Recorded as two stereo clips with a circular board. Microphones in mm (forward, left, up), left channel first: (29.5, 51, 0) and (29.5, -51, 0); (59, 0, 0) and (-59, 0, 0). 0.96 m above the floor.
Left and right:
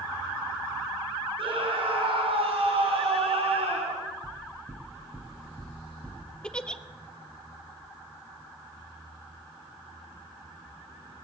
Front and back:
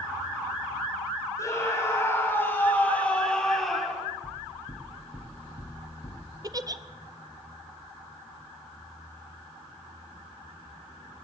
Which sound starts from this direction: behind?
A giggle, at 6.4 s.